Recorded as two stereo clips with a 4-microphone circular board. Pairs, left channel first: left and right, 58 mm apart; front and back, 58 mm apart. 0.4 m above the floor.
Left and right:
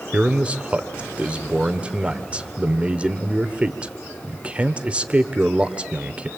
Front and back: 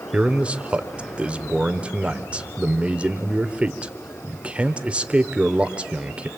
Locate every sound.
0.1 s a man speaking: 135° right, 1.4 m